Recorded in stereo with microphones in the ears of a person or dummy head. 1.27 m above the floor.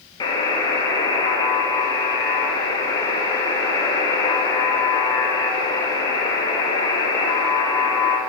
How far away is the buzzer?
About 0.8 m.